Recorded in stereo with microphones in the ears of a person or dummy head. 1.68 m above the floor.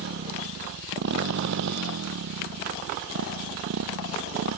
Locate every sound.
0.0 s a motorcycle: 60° right (ahead or behind); by 4.6 s 75° right (ahead or behind)